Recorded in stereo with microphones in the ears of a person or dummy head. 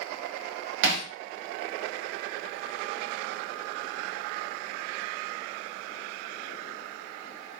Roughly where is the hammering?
Right.